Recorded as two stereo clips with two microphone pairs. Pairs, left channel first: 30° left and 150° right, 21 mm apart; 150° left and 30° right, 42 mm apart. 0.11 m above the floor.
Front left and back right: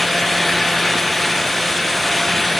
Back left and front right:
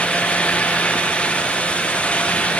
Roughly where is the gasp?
I don't hear a gasp.